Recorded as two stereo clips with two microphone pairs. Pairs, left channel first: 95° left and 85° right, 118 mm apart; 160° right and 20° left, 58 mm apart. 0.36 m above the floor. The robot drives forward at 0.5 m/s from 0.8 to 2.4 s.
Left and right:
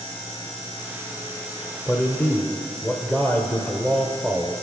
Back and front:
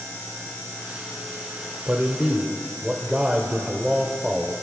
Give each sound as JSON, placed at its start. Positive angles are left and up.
{"t": 1.9, "sound": "a man speaking", "azimuth_deg": 40, "distance_m": 0.9}